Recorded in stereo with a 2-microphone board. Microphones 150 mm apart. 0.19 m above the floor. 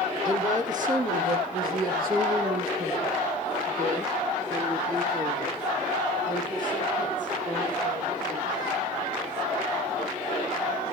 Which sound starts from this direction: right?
A woman speaking, at 0.2 s.